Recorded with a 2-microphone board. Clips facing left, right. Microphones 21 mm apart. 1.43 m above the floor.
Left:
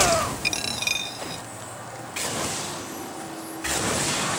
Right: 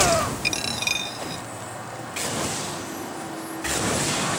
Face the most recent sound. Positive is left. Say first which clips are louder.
# right 1 dB
turn(degrees=5)  # may be behind; listen again after turning